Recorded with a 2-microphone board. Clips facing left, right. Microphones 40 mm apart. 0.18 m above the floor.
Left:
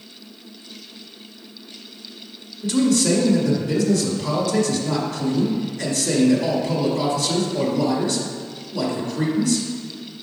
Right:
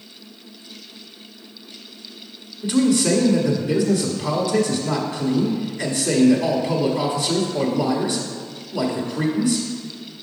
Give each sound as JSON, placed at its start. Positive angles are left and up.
{"t": 2.6, "sound": "a man speaking", "side_deg": -20, "distance_m": 1.0}